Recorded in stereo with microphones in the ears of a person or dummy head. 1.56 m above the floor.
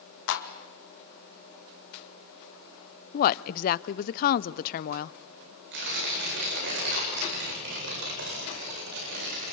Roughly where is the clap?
Left.